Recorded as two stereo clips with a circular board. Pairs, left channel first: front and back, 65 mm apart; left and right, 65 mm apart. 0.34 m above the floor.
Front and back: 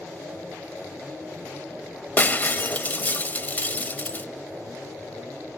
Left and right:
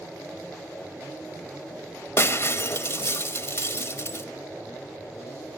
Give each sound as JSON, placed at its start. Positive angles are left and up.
{"t": 2.2, "sound": "breaking glass", "azimuth_deg": 55, "distance_m": 0.8}